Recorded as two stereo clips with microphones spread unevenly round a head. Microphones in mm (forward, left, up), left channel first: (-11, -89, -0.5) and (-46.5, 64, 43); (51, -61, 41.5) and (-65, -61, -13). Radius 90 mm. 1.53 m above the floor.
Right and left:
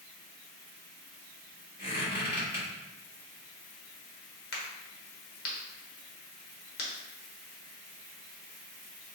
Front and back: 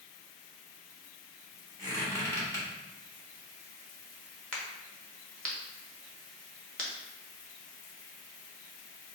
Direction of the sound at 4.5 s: 45° right.